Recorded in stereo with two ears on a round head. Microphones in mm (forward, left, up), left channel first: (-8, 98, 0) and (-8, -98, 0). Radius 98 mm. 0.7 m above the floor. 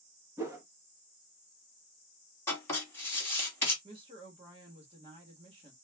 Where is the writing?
15° left (ahead or behind), 1.5 m.